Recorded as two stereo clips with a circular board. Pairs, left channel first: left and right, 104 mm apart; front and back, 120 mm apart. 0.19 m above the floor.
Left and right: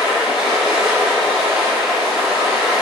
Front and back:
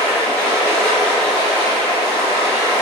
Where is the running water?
65° right, 1.2 m.